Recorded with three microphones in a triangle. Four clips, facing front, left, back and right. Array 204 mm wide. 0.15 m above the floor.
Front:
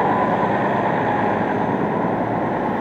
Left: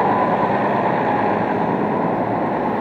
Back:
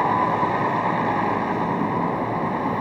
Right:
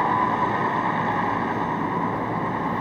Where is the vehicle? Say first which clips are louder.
Left 5 dB, front 2 dB; 65° left.